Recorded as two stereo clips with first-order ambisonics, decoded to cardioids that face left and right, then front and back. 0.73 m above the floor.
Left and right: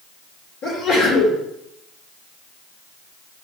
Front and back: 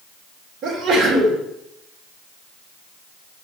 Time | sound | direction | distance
0.6 | a sneeze | 130° left | 1.8 m